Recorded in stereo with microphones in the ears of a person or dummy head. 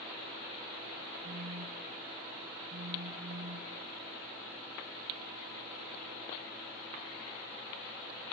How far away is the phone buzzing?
About 0.9 m.